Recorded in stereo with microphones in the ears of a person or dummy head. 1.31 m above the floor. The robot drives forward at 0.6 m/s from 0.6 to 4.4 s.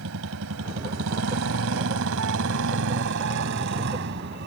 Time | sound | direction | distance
0.0 | a motorcycle | 80° right | ?